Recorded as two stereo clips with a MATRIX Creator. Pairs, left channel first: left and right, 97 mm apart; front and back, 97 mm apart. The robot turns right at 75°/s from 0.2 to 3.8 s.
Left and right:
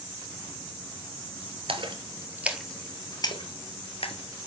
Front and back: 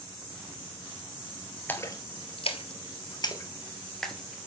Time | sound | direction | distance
1.7 | a splash | 70° right | 1.3 m